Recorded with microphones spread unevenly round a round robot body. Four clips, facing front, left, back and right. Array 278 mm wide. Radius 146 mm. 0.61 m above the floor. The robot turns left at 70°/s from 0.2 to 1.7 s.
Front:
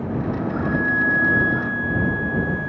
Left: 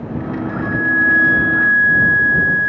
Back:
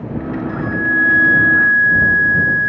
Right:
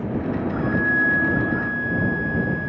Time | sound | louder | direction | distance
0.5 | a flute | left 4 dB, back 4 dB | 155° right | ?